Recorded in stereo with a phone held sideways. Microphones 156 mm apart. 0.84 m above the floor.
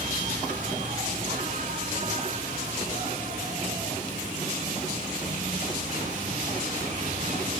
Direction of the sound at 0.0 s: 55° right (ahead or behind).